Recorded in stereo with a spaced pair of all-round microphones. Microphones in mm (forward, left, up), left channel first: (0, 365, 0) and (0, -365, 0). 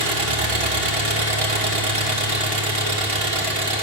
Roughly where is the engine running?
Right.